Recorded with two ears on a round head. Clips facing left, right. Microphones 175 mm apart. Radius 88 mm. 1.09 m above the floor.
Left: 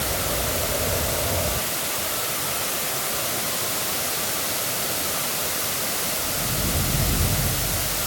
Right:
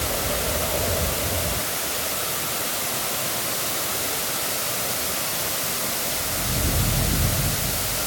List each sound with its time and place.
Only background noise.